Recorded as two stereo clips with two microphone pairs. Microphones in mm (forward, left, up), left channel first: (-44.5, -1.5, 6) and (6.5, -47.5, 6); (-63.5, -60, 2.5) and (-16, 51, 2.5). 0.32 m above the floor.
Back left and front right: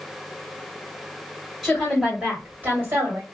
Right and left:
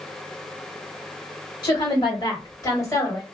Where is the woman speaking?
135° right, 1.7 m; by 3.2 s 55° right, 1.9 m.